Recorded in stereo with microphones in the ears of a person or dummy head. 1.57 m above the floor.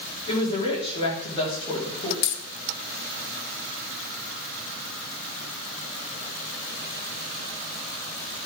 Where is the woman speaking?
30° left (ahead or behind), 3.5 m.